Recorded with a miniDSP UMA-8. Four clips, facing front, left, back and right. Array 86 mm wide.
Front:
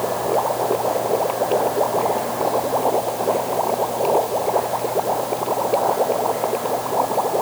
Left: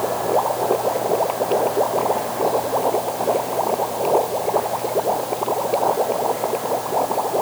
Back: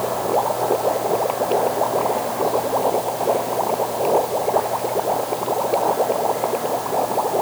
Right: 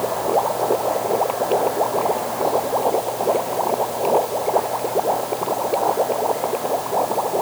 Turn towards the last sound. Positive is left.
No sound to turn to.